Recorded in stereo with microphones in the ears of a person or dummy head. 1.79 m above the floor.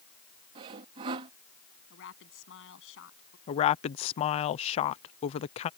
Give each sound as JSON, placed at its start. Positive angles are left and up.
{"t": 0.6, "sound": "sawing", "side_deg": -20}
{"t": 1.9, "sound": "a woman speaking", "side_deg": 75}
{"t": 3.5, "sound": "a woman speaking", "side_deg": 40}